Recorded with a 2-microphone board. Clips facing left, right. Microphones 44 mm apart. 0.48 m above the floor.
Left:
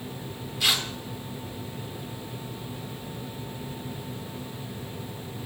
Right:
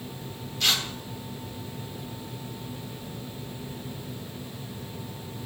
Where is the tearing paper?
10° left (ahead or behind), 1.3 m.